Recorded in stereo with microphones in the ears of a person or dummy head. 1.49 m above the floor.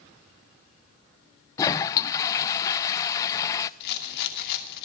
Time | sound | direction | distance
1.6 | a toilet flushing | 20° left (ahead or behind) | 0.7 m
3.8 | a rattle | 60° left (ahead or behind) | 2.5 m